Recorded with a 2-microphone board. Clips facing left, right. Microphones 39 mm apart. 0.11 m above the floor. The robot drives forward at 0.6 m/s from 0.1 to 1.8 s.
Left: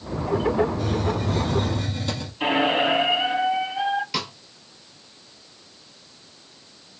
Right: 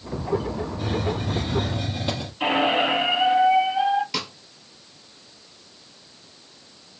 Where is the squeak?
5° right (ahead or behind), 2 m.